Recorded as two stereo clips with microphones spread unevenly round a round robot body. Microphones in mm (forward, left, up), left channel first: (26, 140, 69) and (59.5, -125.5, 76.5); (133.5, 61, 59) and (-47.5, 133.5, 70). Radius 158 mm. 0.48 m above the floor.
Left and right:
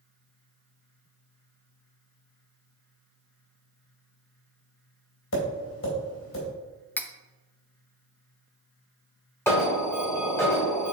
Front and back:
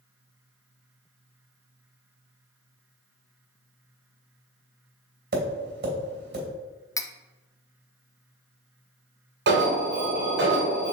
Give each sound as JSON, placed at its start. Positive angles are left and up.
{"t": 5.3, "sound": "tapping", "azimuth_deg": 135, "distance_m": 3.0}
{"t": 7.0, "sound": "cutlery clinking", "azimuth_deg": 25, "distance_m": 0.6}
{"t": 9.5, "sound": "an alarm", "azimuth_deg": 175, "distance_m": 2.0}